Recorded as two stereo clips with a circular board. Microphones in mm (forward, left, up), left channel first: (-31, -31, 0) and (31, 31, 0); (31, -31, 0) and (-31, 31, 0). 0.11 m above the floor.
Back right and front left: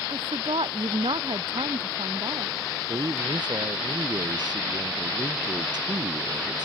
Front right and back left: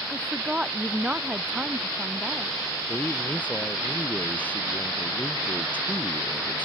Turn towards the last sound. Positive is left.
turn(degrees=25)